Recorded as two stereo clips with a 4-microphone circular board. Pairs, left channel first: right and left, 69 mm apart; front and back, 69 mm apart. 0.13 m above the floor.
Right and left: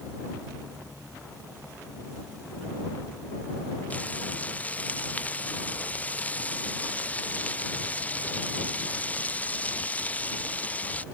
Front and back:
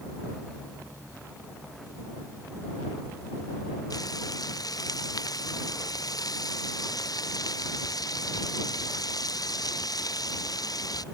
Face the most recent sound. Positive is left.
turn(degrees=-20)